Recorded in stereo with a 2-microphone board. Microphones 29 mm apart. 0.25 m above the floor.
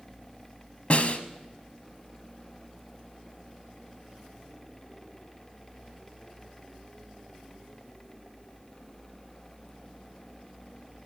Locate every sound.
0.9 s a snare drum: 50° left (ahead or behind), 1.2 m